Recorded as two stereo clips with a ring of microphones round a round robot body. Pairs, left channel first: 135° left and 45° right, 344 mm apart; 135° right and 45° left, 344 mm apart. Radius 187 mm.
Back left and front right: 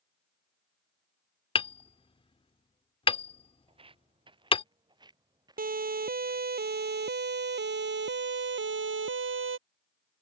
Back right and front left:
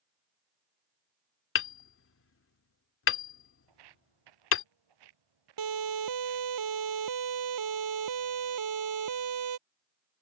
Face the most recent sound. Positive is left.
turn(degrees=10)